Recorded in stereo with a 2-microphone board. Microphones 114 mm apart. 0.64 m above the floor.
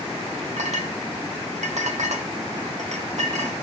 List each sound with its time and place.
0.6 s a clink: 85° right, 1.2 m